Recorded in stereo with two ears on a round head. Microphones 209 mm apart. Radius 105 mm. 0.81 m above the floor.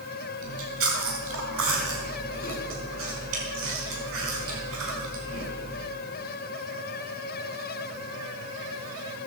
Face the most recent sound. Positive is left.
turn(degrees=-65)  # may be behind; listen again after turning